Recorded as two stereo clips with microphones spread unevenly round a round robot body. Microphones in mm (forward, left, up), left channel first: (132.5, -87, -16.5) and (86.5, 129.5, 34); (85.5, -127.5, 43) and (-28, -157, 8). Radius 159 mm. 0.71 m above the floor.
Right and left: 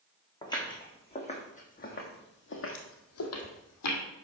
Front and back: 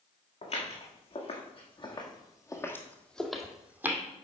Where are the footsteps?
5° right, 3.5 m; by 4.0 s 90° right, 2 m.